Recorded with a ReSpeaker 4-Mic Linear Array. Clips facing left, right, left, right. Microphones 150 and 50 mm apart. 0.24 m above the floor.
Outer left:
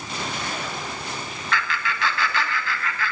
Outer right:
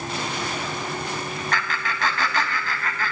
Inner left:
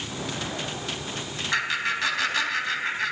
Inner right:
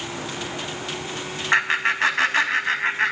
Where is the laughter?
45° right (ahead or behind), 1.6 m.